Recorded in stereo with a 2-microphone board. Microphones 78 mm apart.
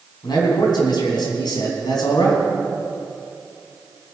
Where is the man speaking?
65° left (ahead or behind), 3.5 m.